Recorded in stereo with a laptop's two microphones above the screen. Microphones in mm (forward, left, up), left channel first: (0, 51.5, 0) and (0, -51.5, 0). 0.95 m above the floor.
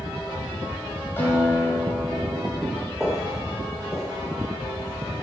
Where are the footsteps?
5° right (ahead or behind), 3 m; by 5.2 s 55° left (ahead or behind), 3.5 m.